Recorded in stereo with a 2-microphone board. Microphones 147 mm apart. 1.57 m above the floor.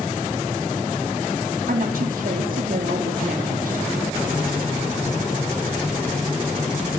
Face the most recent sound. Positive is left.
turn(degrees=-70)  # may be behind; listen again after turning